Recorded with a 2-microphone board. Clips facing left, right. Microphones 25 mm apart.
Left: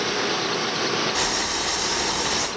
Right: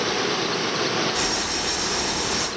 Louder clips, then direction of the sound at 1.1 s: Left 1 dB; 40° left (ahead or behind).